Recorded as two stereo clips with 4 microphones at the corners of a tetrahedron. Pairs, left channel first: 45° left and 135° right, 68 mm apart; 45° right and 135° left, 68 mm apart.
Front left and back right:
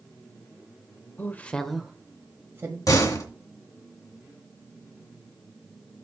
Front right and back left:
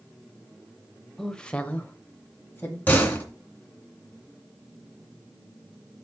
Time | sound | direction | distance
1.2 | a woman speaking | 30° left | 1.0 m
2.9 | a door slam | 20° left | 2 m